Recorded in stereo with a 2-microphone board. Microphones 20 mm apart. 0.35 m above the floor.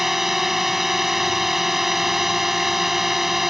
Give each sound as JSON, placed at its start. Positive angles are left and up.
{"t": 0.0, "sound": "a drone", "side_deg": -15}